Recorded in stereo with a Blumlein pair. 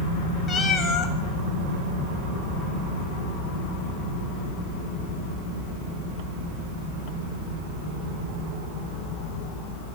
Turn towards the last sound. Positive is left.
turn(degrees=25)